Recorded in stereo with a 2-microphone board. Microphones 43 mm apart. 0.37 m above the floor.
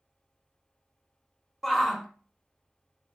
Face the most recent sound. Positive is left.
turn(degrees=5)  # may be behind; listen again after turning